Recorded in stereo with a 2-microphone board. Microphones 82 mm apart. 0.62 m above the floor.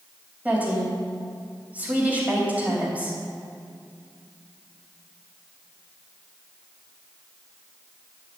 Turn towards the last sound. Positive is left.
turn(degrees=-20)  # may be behind; listen again after turning